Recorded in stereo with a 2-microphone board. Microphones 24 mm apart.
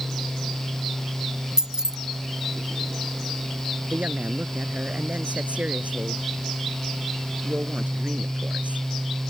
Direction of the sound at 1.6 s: 30° right (ahead or behind).